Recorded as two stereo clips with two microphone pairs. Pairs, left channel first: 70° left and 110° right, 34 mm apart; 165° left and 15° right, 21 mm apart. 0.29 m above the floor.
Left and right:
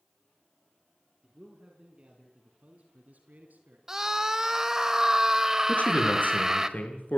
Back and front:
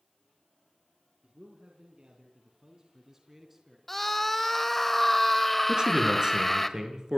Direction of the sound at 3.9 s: 145° right.